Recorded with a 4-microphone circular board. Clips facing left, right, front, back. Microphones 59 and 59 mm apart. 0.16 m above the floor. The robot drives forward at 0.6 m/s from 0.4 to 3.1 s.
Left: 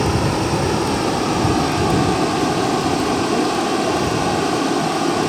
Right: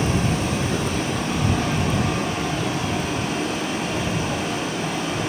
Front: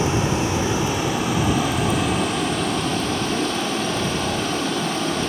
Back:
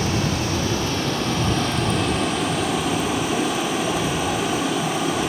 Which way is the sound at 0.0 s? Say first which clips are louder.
Left 4 dB, front 2 dB; 65° left.